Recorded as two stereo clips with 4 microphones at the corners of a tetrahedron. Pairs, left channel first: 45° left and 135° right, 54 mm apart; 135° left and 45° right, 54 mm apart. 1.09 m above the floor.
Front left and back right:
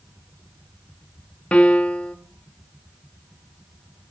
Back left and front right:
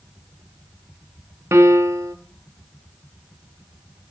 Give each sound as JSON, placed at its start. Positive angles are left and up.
{"t": 1.5, "sound": "a piano", "azimuth_deg": -20, "distance_m": 1.0}